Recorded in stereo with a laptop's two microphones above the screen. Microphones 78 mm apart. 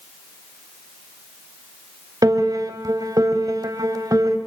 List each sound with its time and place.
2.2 s a piano: 50° right (ahead or behind), 1.9 m